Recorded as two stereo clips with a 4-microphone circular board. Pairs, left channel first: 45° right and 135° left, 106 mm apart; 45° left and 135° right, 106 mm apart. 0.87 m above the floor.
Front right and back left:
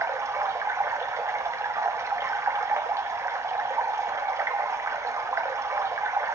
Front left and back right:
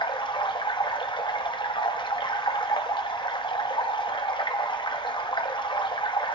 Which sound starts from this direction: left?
Running water, at 0.0 s.